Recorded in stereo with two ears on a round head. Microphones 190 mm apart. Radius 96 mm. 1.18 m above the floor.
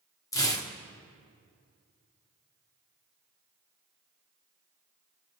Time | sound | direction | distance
0.3 | tearing paper | 15° left (ahead or behind) | 1.2 m